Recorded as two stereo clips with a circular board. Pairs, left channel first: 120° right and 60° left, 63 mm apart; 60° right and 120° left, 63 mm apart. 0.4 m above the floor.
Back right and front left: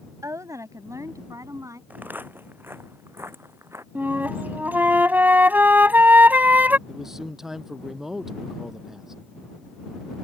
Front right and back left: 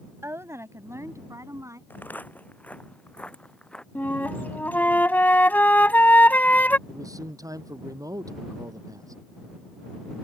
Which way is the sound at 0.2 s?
80° left.